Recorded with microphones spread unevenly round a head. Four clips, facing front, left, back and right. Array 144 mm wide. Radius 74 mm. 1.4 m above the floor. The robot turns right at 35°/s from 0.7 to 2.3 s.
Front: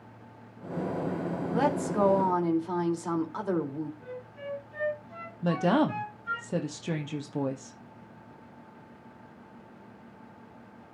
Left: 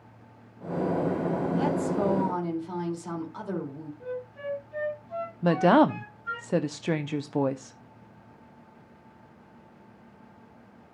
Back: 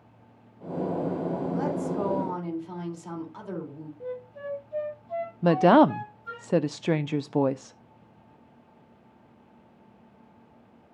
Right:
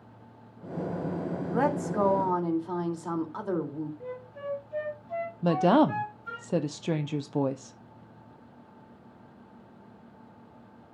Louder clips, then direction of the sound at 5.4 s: Left 2 dB, back 7 dB; 170° left.